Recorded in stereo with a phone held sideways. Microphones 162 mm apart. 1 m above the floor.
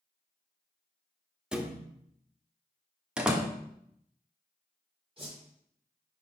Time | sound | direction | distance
1.5 | a thud | 5° right (ahead or behind) | 0.8 m
3.2 | a door slam | 5° right (ahead or behind) | 0.9 m
5.2 | a whoosh | 30° right (ahead or behind) | 2.0 m